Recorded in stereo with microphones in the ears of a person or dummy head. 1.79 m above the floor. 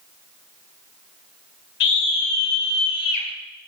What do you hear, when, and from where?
1.8 s a scream: 65° left (ahead or behind), 6.5 m; by 3.3 s 55° left (ahead or behind), 6.5 m